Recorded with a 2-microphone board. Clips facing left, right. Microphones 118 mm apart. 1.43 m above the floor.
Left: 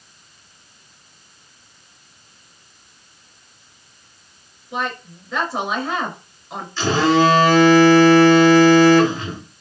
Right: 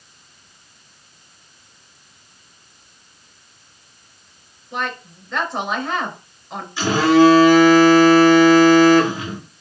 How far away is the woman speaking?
About 2.5 m.